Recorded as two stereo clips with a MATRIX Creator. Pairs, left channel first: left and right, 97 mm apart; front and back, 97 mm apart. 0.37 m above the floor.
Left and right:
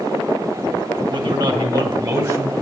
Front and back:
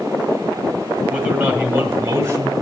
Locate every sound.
1.1 s a man speaking: 100° right, 2.5 m; by 2.5 s 135° right, 1.9 m